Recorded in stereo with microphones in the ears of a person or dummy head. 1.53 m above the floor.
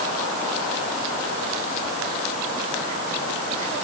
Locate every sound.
Only background noise.